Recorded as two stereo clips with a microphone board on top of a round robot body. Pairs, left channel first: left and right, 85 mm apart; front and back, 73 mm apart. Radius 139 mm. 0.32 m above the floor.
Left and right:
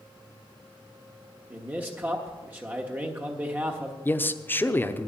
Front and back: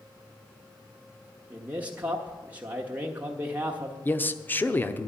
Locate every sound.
1.5 s a man speaking: 135° right, 1.5 m
4.0 s a man speaking: 40° left, 1.0 m